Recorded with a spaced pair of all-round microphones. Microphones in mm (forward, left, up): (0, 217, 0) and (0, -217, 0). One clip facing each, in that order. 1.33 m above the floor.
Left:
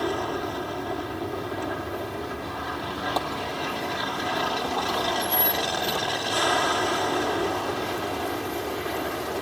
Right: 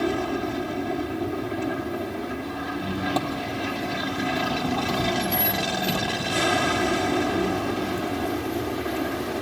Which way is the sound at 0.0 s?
40° right (ahead or behind).